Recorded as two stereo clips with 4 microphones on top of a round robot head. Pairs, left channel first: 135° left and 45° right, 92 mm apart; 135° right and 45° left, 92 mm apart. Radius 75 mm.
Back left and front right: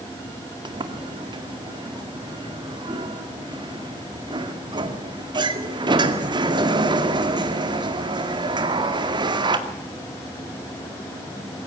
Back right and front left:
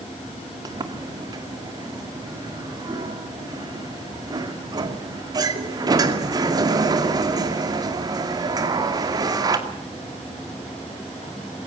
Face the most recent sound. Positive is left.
turn(degrees=-5)